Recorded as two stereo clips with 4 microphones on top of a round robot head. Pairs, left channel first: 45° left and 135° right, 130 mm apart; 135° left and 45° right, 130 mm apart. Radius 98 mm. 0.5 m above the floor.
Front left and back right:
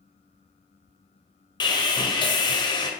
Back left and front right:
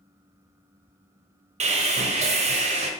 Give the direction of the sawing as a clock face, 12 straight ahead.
12 o'clock.